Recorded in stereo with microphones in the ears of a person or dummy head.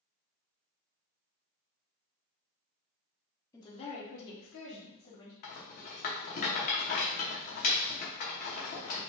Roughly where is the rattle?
Left.